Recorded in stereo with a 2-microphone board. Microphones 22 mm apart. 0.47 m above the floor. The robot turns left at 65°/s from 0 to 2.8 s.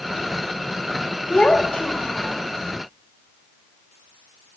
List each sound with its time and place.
1.3 s a child speaking: 115° left, 1.4 m; by 2.4 s 45° left, 1.4 m